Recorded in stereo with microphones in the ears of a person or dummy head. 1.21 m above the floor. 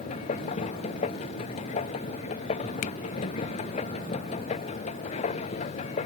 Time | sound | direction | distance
0.0 | a machine running | 35° left (ahead or behind) | ?
2.8 | a finger snap | 40° left (ahead or behind) | ?